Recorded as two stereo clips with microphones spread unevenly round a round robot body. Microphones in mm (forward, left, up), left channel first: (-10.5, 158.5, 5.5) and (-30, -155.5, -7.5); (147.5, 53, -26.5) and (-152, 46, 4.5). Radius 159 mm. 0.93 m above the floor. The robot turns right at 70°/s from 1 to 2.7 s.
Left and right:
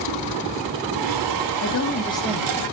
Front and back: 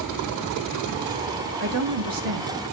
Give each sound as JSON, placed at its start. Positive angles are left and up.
{"t": 1.6, "sound": "a woman speaking", "azimuth_deg": 125, "distance_m": 1.5}